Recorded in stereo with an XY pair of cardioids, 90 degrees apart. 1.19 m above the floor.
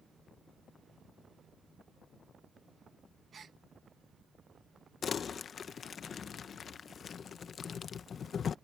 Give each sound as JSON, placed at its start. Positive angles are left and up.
{"t": 3.3, "sound": "a gasp", "azimuth_deg": -55}
{"t": 5.0, "sound": "crumpling", "azimuth_deg": 55}